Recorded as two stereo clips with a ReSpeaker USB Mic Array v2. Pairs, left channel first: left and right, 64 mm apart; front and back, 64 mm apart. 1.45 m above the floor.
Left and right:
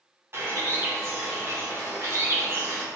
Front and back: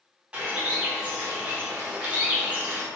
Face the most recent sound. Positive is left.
turn(degrees=-115)